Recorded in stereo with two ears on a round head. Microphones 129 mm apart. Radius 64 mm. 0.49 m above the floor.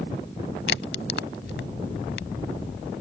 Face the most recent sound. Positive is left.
turn(degrees=75)  # may be behind; listen again after turning